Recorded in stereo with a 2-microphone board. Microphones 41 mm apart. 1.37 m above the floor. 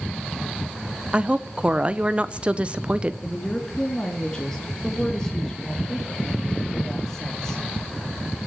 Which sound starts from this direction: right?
A woman speaking, at 1.1 s.